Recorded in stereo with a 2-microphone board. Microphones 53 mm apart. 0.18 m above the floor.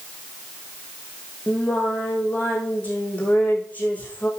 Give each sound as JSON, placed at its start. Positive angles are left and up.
{"t": 1.5, "sound": "singing", "side_deg": 30, "distance_m": 3.5}